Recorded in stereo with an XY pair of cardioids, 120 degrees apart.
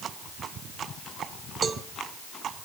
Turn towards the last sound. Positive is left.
turn(degrees=-30)